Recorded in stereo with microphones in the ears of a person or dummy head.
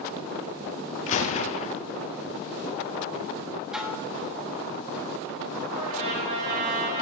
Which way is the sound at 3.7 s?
5° right (ahead or behind).